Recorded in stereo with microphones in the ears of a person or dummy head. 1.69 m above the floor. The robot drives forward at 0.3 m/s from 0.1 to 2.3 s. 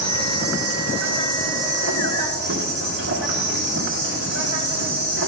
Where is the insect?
70° right (ahead or behind), 1.3 m; by 5.3 s 60° right (ahead or behind), 1.4 m.